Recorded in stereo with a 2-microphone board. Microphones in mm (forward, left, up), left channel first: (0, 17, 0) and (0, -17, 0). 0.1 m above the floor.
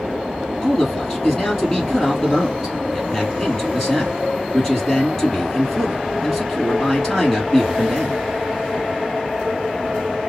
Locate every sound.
0.6 s a man speaking: 15° left (ahead or behind), 3 m